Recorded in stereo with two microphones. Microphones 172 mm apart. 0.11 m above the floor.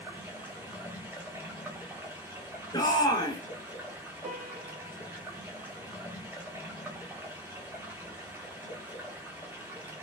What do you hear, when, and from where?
0.0 s running water: 10° right (ahead or behind), 1.8 m
2.7 s a shout: 25° left (ahead or behind), 1.3 m
4.2 s a piano: 55° right (ahead or behind), 2.5 m